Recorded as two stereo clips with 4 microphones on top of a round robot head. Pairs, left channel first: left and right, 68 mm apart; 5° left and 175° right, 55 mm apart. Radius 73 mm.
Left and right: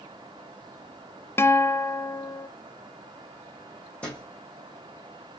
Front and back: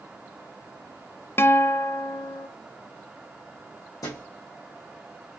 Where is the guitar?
45° left, 0.5 m.